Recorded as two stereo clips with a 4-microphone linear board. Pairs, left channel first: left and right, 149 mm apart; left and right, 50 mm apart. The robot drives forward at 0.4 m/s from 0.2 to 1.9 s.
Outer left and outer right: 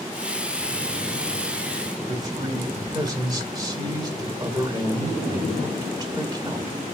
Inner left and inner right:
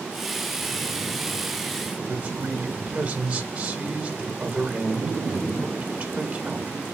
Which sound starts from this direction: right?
A man speaking, at 2.1 s.